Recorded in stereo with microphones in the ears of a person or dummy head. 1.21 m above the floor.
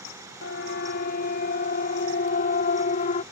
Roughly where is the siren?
Left.